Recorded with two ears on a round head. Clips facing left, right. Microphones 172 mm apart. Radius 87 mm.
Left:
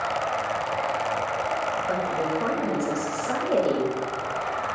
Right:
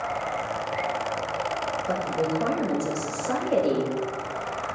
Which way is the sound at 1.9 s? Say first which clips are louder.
Right 2 dB; 40° right (ahead or behind).